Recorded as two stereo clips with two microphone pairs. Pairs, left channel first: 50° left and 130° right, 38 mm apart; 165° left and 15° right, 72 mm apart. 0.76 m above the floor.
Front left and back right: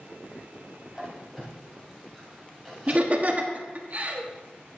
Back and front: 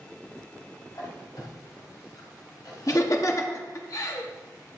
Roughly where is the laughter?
Behind.